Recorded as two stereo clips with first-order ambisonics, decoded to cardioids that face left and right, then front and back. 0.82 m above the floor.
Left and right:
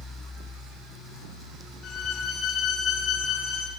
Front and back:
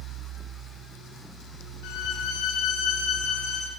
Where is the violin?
25° left, 7 m.